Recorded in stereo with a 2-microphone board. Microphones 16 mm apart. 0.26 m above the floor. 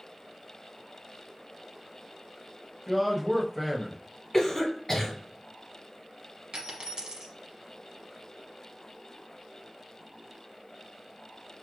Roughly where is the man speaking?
Centre.